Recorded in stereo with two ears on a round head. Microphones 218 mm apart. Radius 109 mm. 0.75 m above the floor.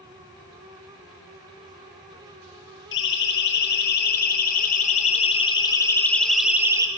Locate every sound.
2.9 s a siren: 50° left (ahead or behind), 6.5 m; by 6.9 s 15° right (ahead or behind), 3 m